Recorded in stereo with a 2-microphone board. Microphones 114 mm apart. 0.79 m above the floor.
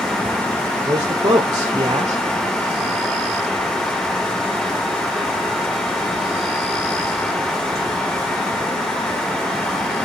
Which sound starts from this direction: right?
A man speaking, at 0.8 s.